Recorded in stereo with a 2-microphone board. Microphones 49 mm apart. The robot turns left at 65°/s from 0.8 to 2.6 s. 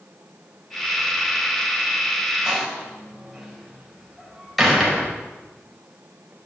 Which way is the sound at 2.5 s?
10° right (ahead or behind).